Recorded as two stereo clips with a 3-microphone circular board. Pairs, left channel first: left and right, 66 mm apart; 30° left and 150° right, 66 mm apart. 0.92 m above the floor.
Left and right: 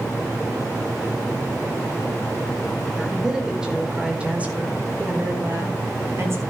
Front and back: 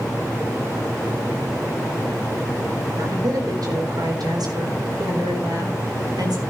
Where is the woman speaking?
175° right, 4 m; by 6.4 s 140° right, 4.5 m.